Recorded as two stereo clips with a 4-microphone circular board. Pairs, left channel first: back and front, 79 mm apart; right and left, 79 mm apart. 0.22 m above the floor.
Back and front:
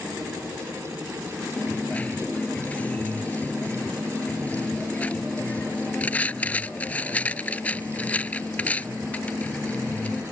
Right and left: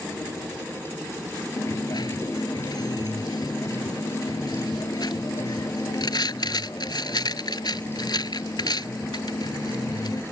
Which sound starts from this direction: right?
A dropped coin, at 1.6 s.